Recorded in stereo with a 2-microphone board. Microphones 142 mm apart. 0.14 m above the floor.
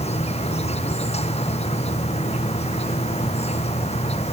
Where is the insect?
50° left (ahead or behind).